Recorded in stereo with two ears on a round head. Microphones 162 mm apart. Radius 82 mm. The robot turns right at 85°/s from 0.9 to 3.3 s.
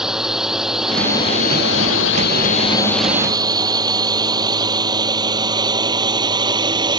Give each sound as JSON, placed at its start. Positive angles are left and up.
{"t": 0.0, "sound": "a drone", "side_deg": 0}